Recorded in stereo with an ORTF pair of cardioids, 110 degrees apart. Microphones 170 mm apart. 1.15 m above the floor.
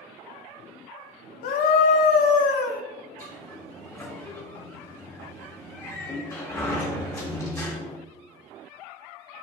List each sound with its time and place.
1.4 s a scream: 60° left, 1.0 m
3.2 s a sliding door: 20° left, 2 m